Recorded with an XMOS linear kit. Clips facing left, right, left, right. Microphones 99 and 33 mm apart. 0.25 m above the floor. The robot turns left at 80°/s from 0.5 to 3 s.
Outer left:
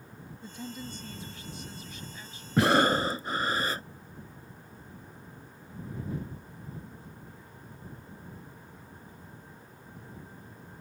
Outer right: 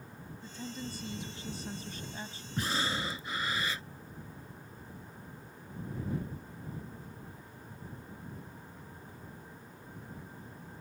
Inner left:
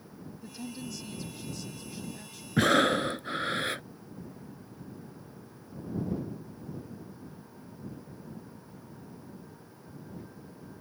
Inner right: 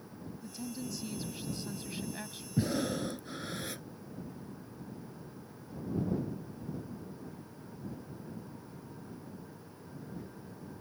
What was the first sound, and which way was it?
A woman speaking, 30° left.